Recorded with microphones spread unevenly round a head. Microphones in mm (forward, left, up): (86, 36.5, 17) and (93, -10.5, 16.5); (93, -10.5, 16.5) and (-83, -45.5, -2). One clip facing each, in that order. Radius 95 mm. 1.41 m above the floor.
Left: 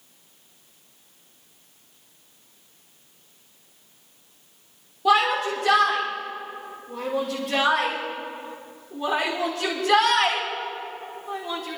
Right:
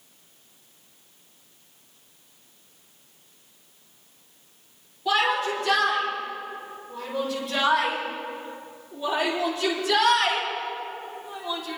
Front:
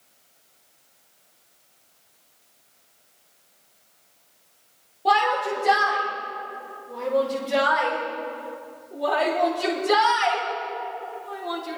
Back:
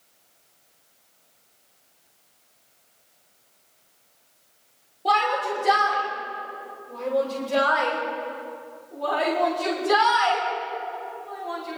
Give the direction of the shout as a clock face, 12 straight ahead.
9 o'clock.